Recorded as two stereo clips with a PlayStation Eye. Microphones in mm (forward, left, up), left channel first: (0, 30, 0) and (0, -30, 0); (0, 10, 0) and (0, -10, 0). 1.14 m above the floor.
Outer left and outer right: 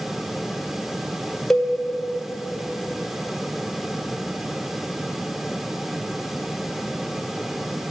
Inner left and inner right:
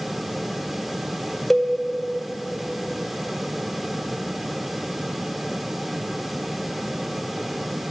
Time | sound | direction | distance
1.5 | a cowbell | 5° left (ahead or behind) | 0.8 m